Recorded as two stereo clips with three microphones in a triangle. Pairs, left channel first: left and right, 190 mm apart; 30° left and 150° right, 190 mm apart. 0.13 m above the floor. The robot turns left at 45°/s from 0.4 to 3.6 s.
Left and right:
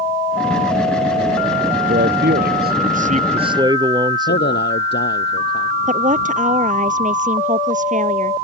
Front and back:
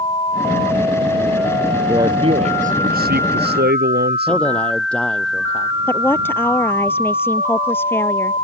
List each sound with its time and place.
1.9 s a man speaking: 75° right; by 4.7 s 155° right
4.3 s a man speaking: 115° left
5.9 s a woman speaking: 50° right